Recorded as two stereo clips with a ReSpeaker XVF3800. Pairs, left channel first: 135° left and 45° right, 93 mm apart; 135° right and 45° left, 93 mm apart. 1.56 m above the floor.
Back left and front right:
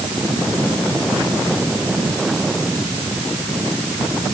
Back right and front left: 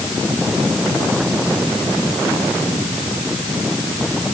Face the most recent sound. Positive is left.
No sound to turn to.